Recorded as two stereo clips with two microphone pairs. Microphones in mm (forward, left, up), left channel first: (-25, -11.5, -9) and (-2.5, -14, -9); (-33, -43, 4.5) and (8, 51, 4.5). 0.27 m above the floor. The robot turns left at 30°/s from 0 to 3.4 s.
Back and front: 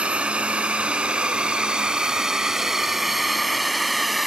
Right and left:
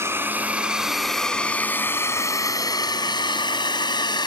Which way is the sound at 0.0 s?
5° left.